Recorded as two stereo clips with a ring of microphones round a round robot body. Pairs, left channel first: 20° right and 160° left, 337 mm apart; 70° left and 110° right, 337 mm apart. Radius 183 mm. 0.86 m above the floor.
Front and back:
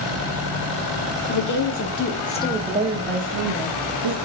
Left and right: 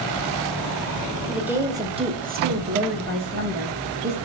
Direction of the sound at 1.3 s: 25° right.